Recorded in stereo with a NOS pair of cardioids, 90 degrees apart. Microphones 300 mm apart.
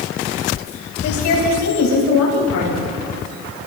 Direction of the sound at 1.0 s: 70° left.